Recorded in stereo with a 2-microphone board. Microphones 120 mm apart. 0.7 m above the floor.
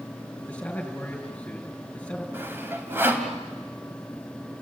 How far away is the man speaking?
About 4.5 m.